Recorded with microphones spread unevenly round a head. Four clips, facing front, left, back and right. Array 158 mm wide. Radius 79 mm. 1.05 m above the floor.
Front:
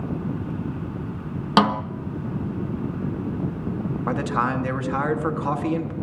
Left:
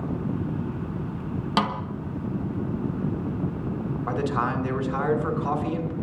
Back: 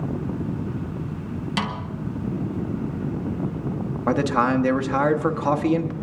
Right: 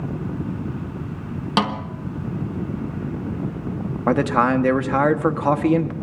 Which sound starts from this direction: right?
A man speaking, at 4.1 s.